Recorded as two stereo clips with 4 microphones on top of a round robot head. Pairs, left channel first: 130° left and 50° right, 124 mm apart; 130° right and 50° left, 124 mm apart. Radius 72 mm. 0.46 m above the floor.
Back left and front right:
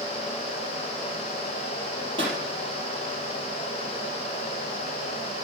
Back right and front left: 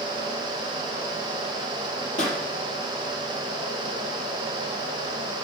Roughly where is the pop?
Right.